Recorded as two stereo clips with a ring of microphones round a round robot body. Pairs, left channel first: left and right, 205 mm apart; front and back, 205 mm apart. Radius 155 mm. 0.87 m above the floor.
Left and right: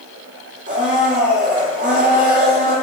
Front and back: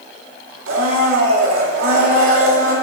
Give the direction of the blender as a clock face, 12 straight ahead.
5 o'clock.